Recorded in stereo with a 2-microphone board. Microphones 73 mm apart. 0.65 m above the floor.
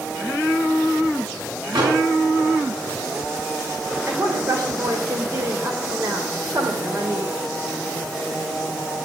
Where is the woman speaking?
50° right (ahead or behind), 3 m.